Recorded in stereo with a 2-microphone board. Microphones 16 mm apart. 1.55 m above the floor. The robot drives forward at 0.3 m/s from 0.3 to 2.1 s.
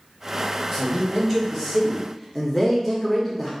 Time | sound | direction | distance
0.7 | a man speaking | 5° left (ahead or behind) | 0.9 m